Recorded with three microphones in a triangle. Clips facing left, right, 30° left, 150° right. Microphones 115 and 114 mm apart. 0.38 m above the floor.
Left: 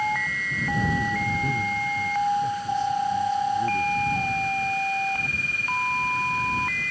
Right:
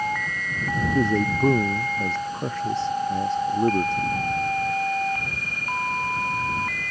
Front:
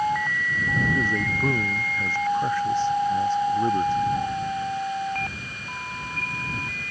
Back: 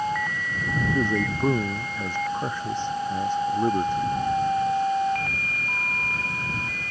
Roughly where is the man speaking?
Right.